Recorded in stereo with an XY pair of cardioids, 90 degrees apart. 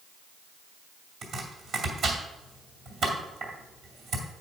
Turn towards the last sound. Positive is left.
turn(degrees=-70)